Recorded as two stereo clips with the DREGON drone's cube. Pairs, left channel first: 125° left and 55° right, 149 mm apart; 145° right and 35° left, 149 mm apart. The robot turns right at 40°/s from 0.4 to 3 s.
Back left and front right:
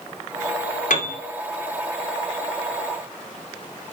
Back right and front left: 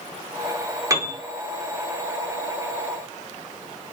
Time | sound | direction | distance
0.9 | a piano | 100° left | 0.5 m